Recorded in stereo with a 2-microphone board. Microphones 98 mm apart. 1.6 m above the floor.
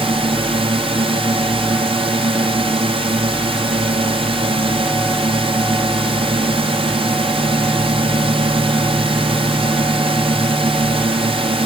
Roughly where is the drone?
Right.